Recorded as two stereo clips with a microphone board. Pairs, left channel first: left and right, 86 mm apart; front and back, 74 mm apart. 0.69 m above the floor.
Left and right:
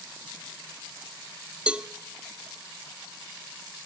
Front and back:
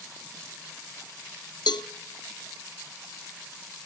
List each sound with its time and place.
1.7 s a cowbell: 15° right, 0.5 m